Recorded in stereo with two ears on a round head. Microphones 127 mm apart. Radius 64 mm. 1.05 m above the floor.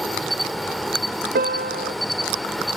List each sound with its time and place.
0.0 s an insect: centre (ahead or behind), 1.1 m
1.4 s a piano: 65° right (ahead or behind), 0.6 m